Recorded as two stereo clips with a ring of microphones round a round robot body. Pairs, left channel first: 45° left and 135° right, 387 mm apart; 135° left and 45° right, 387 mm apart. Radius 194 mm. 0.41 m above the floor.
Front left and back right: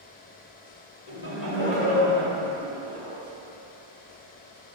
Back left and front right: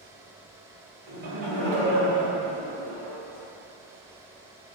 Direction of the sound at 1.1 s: 5° right.